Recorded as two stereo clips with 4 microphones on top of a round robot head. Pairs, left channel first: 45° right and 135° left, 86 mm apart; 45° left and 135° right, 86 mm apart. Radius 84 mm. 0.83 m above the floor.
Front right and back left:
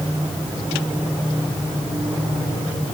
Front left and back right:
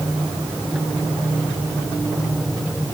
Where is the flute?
No flute in this recording.